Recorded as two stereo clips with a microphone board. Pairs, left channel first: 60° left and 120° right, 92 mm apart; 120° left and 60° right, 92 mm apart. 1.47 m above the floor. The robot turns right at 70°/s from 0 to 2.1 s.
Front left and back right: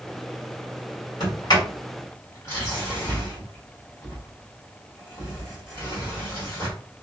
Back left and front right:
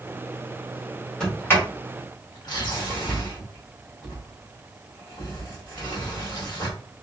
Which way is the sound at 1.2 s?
45° left.